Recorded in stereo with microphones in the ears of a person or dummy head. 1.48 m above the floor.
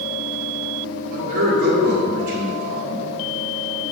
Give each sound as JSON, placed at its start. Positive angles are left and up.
{"t": 1.1, "sound": "a man speaking", "side_deg": -45, "distance_m": 2.0}